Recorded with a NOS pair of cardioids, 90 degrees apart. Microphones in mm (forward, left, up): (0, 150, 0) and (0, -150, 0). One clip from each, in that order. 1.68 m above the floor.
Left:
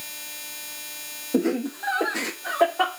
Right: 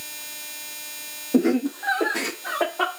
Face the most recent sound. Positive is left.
turn(degrees=5)